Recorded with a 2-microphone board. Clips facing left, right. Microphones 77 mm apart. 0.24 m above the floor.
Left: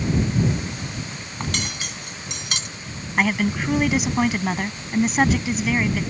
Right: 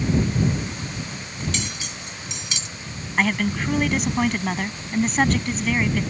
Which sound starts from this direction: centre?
A woman speaking, at 3.2 s.